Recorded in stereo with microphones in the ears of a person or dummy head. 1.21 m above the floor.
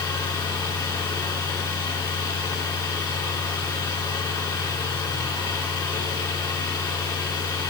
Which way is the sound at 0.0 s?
15° left (ahead or behind).